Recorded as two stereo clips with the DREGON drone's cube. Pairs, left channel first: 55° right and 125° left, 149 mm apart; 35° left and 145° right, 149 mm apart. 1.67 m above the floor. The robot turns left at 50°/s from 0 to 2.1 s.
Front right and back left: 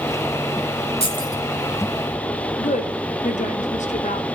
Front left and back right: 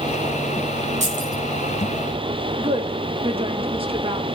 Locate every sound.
1.0 s keys jangling: 105° right, 8.5 m; by 1.4 s 125° right, 8.5 m
2.6 s a woman speaking: 95° right, 1.2 m